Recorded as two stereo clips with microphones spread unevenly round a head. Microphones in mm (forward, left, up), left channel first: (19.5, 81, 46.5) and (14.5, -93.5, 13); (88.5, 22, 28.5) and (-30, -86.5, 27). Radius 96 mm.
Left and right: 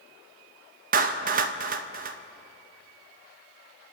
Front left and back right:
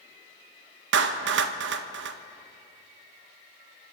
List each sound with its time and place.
0.9 s a clap: 135° right, 0.8 m